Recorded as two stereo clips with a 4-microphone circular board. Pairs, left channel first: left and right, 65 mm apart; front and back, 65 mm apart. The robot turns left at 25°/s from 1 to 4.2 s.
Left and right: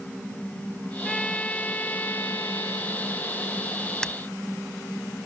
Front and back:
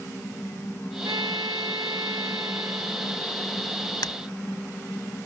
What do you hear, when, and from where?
1.0 s a trumpet: straight behind; by 4.2 s 100° left
4.0 s breaking glass: 10° left